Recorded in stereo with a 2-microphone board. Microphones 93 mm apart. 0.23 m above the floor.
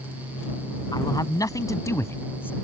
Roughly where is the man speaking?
Left.